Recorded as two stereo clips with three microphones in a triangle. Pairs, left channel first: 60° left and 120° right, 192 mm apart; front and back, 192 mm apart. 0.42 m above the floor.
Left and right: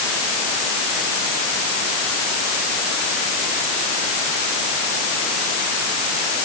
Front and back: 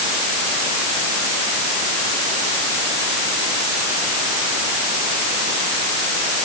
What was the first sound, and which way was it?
Only background noise.